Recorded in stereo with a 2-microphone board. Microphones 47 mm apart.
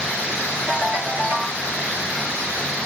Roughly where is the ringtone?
Right.